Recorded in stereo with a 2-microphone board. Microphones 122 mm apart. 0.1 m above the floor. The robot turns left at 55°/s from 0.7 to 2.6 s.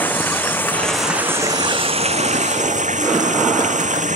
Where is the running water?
15° left; by 4.2 s 90° right.